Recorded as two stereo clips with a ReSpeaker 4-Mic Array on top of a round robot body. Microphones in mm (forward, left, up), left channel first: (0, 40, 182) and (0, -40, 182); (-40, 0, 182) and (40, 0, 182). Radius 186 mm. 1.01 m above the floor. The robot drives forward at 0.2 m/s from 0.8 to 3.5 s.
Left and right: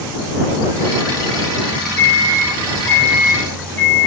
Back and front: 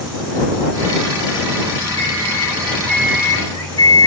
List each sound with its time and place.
2.0 s a microwave: 145° left, 0.9 m; by 4.1 s 155° left, 1.1 m